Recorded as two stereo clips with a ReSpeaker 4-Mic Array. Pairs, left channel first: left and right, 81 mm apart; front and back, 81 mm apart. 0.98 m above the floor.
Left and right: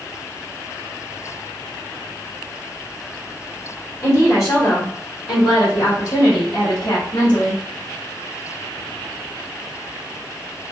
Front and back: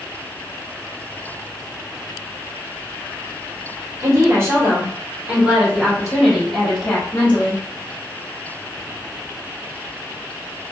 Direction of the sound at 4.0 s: 135° left.